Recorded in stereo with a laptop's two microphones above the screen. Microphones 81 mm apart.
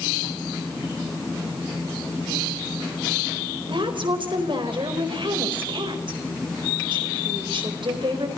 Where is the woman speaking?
70° right (ahead or behind), 4 m.